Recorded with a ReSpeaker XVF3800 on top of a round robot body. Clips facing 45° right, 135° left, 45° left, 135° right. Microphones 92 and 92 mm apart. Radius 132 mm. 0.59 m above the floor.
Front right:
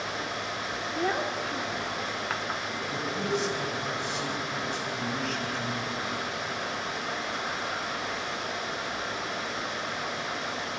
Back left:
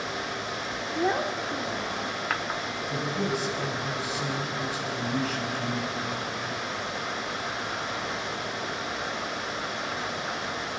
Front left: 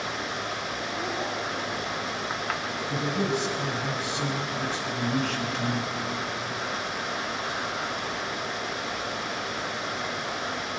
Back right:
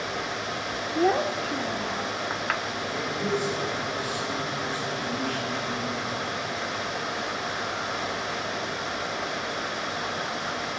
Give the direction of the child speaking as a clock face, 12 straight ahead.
5 o'clock.